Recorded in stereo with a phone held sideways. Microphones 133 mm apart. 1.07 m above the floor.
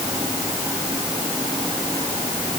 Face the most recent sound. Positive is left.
No sound to turn to.